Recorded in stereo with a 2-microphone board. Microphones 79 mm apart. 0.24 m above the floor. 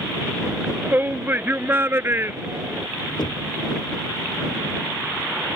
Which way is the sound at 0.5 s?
20° right (ahead or behind).